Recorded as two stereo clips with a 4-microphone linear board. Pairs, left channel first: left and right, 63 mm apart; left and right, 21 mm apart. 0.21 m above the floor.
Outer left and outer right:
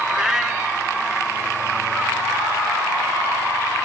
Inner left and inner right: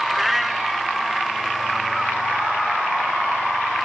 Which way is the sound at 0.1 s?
10° right (ahead or behind).